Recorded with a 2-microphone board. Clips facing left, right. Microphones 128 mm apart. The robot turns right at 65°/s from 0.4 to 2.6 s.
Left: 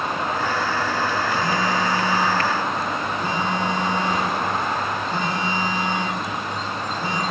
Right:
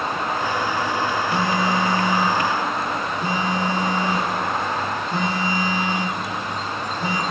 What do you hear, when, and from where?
1.3 s a phone buzzing: 100° right, 0.7 m; by 7.2 s 15° right, 0.7 m